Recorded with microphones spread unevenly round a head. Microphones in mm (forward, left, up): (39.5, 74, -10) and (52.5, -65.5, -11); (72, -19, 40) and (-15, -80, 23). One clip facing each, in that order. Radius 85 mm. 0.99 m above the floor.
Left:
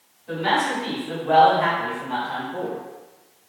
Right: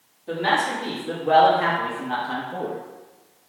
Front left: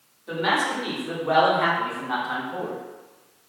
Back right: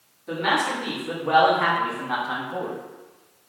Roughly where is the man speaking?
Ahead right.